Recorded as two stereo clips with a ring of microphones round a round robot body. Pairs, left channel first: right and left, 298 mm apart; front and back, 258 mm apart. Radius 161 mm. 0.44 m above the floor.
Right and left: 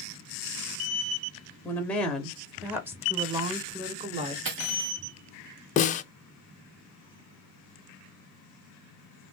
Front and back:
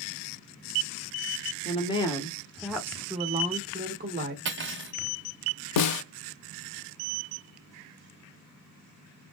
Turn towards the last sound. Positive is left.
turn(degrees=-25)